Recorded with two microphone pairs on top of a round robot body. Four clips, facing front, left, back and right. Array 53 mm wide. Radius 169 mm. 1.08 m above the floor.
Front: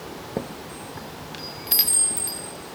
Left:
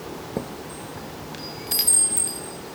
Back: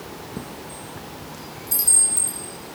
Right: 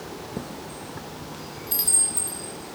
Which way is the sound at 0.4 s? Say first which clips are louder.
Left 3 dB, front 3 dB; 30° left.